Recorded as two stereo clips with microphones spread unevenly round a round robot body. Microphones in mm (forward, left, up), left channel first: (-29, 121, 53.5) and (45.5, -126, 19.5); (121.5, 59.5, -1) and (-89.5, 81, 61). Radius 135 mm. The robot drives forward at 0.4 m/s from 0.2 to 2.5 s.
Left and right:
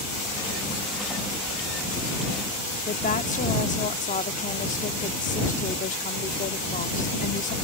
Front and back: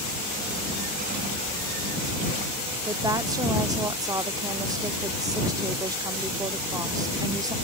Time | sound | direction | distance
2.9 | a woman speaking | 80° left | ?